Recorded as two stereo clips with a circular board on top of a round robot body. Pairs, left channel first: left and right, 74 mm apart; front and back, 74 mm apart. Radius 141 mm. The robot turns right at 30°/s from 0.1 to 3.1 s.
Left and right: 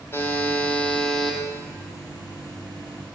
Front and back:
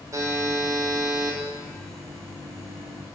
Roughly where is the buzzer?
Behind left.